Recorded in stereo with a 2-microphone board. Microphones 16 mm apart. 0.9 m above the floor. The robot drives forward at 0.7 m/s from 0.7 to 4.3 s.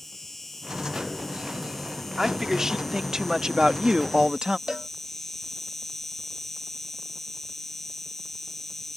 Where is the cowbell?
50° right (ahead or behind).